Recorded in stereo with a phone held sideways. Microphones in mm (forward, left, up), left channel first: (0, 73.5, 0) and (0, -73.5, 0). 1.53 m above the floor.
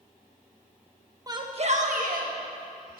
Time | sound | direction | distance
1.3 | a shout | 25° right (ahead or behind) | 1.3 m